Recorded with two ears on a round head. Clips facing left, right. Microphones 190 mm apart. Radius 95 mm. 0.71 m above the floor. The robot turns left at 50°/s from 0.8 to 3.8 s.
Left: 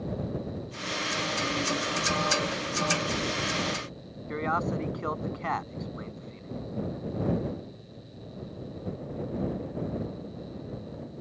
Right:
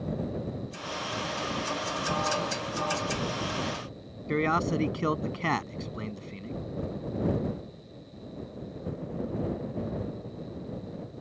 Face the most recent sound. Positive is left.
turn(degrees=-40)  # may be behind; listen again after turning